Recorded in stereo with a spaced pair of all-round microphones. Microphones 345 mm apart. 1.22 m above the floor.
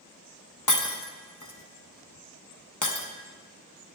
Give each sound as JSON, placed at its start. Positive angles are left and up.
{"t": 0.7, "sound": "breaking glass", "side_deg": 60, "distance_m": 0.8}